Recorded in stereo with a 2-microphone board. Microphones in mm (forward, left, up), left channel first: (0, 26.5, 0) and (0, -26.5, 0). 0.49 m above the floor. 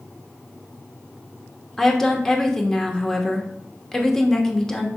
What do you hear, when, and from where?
1.8 s a woman speaking: 10° left (ahead or behind), 1.1 m